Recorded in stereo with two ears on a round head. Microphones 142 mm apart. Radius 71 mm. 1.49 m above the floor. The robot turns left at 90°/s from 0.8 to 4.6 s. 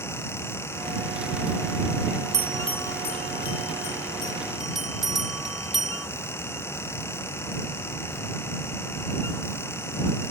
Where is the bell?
20° right (ahead or behind); by 6.1 s centre (ahead or behind).